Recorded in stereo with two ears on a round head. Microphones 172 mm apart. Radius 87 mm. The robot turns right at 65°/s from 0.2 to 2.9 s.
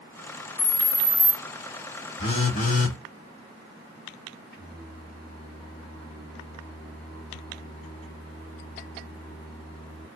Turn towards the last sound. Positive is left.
turn(degrees=5)  # may be behind; listen again after turning